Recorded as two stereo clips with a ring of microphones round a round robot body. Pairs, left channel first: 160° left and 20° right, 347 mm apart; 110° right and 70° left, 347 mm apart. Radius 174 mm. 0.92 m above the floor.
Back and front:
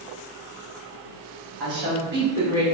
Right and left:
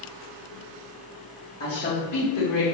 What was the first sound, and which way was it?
A woman speaking, 50° right.